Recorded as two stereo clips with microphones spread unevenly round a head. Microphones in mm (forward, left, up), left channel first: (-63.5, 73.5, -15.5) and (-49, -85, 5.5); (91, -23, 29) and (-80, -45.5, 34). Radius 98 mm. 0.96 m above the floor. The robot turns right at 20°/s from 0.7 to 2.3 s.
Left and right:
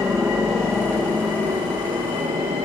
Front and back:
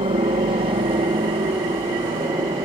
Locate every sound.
0.0 s a helicopter: 160° right; by 2.6 s 130° right